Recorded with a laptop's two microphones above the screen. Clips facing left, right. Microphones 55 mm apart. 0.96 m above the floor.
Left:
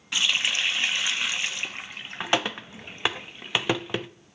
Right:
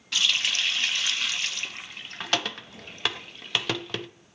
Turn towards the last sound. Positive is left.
turn(degrees=15)  # may be behind; listen again after turning